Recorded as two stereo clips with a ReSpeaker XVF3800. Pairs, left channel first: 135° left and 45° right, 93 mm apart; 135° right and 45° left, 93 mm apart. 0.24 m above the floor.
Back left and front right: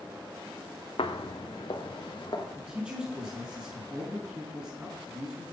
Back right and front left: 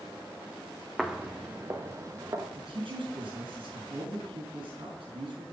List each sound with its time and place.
1.0 s footsteps: 130° left, 0.8 m; by 2.5 s 100° left, 2 m
2.5 s a man speaking: 35° left, 4 m